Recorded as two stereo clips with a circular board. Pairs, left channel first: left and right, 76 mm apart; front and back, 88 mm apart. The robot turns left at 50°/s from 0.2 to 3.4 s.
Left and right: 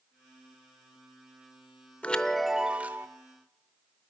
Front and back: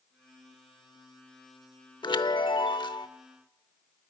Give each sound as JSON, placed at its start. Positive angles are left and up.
{"t": 2.0, "sound": "a chime", "azimuth_deg": 20, "distance_m": 0.7}